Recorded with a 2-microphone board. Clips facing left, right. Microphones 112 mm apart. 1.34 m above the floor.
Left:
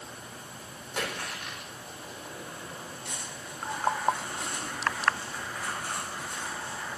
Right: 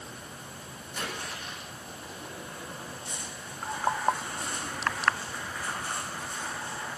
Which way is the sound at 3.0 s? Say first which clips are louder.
Even; 70° left (ahead or behind).